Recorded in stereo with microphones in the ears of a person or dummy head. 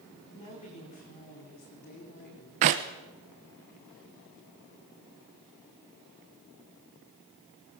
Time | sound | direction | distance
0.3 | a woman speaking | 30° left (ahead or behind) | 4.5 m
2.6 | a clap | 30° right (ahead or behind) | 0.7 m